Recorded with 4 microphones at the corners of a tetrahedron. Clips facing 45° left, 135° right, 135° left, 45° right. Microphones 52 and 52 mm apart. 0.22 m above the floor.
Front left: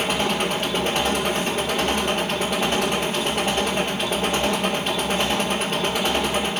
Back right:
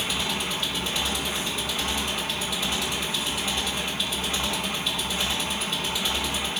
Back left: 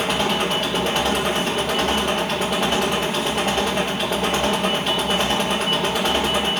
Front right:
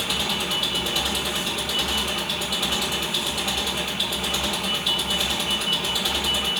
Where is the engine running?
90° left, 4 m.